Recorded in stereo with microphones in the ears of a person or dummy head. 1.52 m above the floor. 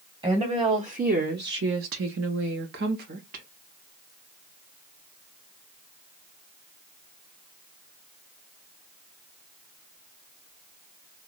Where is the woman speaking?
15° right (ahead or behind), 1.0 m; by 3.5 s 45° right (ahead or behind), 1.3 m.